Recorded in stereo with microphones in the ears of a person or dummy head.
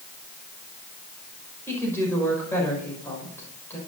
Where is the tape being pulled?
I don't hear tape being pulled.